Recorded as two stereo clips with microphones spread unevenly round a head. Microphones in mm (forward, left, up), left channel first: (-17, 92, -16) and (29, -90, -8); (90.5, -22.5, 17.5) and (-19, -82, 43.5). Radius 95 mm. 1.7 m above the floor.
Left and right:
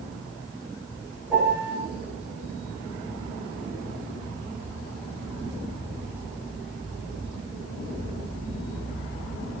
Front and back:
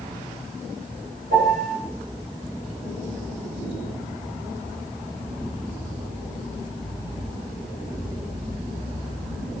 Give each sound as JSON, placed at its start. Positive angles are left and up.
{"t": 1.3, "sound": "a piano", "azimuth_deg": -160, "distance_m": 7.5}